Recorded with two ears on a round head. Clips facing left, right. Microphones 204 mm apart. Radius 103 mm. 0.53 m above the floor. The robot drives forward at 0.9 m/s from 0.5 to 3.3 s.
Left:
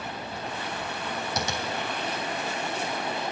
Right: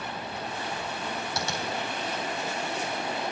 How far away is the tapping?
About 3 m.